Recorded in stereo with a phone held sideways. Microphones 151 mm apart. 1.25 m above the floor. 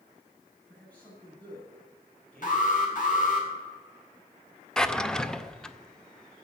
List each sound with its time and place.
0.7 s a man speaking: 10° left (ahead or behind), 7 m
2.4 s an alarm: 60° left (ahead or behind), 3 m
4.8 s a drawer: 5° left (ahead or behind), 0.6 m